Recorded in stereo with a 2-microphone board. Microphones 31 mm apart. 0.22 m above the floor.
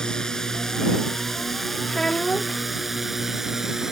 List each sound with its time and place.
0.0 s a drone: 20° left (ahead or behind); by 3.9 s 10° right (ahead or behind)
1.9 s a child speaking: 20° left (ahead or behind)